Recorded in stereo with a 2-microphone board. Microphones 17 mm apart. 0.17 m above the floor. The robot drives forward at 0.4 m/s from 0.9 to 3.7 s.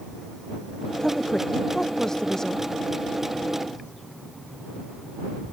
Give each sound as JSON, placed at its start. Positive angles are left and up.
{"t": 1.0, "sound": "a woman speaking", "side_deg": 30}